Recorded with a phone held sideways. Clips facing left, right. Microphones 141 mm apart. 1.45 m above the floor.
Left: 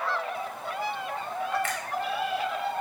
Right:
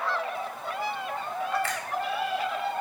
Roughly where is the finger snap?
Right.